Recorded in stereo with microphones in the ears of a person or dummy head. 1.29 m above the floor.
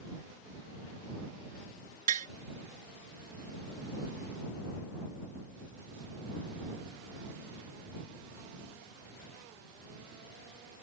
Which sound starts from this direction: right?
Tapping, at 2.1 s.